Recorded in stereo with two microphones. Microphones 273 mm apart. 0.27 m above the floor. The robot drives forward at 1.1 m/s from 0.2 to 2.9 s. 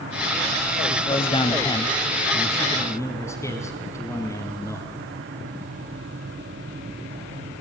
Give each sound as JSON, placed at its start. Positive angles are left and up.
{"t": 0.9, "sound": "a man speaking", "side_deg": 20, "distance_m": 1.2}